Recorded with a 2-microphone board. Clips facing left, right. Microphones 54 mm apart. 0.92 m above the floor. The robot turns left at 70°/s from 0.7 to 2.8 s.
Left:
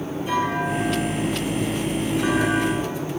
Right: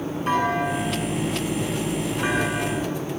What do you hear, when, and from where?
0.3 s a clunk: 60° right, 9 m; by 2.9 s 155° left, 9 m